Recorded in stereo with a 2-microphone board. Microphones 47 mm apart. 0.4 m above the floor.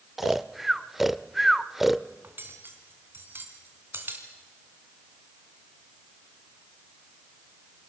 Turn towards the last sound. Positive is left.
turn(degrees=-50)  # may be behind; listen again after turning